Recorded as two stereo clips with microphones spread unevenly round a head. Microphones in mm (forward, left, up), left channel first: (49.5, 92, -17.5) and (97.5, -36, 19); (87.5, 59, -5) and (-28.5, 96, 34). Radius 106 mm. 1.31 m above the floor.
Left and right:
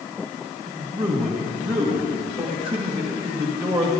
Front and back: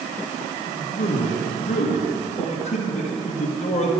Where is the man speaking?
15° right, 2.0 m.